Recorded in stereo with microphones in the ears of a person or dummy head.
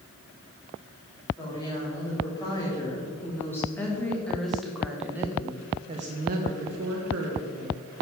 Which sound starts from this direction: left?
A woman speaking, at 1.4 s.